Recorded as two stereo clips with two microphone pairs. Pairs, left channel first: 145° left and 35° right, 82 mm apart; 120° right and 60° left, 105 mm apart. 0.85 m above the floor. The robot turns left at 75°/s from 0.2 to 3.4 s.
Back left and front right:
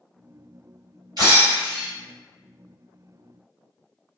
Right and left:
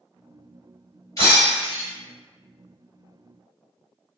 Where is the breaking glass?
65° right, 1.6 m; by 1.9 s 115° right, 1.6 m.